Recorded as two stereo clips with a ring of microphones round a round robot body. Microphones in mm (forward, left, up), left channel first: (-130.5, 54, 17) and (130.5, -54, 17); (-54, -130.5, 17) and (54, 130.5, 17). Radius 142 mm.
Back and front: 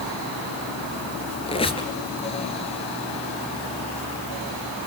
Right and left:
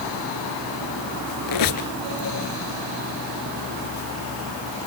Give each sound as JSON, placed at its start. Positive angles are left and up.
{"t": 1.5, "sound": "a squeak", "azimuth_deg": -130, "distance_m": 1.9}